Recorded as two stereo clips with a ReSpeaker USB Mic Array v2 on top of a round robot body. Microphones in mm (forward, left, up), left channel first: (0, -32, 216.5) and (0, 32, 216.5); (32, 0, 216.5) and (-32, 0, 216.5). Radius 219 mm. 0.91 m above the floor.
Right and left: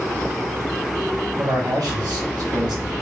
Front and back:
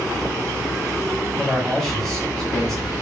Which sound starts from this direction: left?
A man speaking, at 1.4 s.